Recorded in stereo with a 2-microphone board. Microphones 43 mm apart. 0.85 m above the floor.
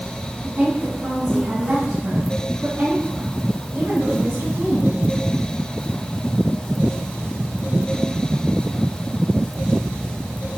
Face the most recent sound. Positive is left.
turn(degrees=-60)  # may be behind; listen again after turning